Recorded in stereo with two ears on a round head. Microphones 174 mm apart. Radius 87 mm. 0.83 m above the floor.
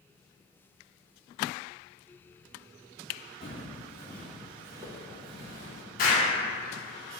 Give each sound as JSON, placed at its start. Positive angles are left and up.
{"t": 3.4, "sound": "footsteps", "side_deg": 30, "distance_m": 0.9}
{"t": 6.0, "sound": "an explosion", "side_deg": 45, "distance_m": 1.1}